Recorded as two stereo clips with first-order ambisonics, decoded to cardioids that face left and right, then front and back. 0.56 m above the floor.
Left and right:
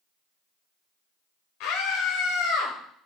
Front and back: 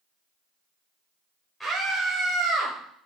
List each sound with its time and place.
1.6 s a scream: 90° left, 2 m; by 2.7 s 110° left, 2.5 m